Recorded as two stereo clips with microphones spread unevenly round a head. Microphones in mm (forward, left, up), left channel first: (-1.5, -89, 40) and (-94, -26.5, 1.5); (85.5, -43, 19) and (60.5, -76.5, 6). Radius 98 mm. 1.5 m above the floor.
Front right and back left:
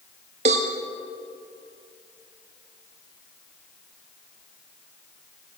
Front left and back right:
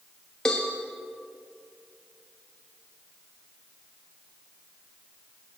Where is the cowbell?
100° left, 1.0 m.